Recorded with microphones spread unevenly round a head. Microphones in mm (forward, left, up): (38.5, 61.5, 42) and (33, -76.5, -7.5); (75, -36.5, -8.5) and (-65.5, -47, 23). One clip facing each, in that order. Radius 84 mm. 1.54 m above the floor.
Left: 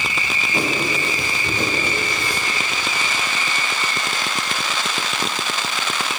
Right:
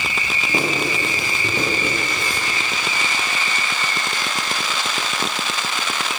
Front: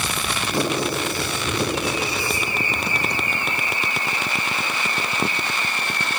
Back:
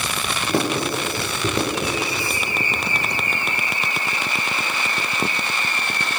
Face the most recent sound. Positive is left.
turn(degrees=-150)